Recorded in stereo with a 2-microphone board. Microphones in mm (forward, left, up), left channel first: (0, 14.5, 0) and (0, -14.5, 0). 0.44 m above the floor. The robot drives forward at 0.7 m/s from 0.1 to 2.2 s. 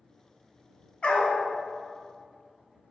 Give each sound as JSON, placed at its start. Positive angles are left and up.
{"t": 1.0, "sound": "a dog barking", "side_deg": 40, "distance_m": 1.1}